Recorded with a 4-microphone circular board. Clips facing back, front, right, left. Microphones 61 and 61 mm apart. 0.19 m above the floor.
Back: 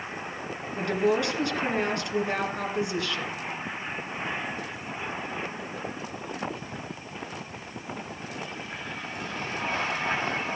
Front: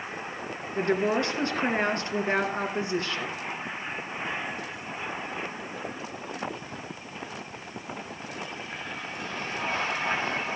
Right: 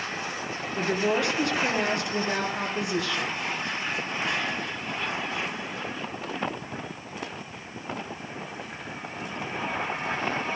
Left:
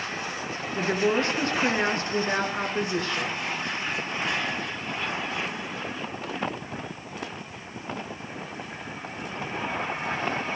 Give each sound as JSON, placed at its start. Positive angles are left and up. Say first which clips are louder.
{"t": 0.8, "sound": "a woman speaking", "louder": "even, left 1 dB", "azimuth_deg": 45, "distance_m": 2.5}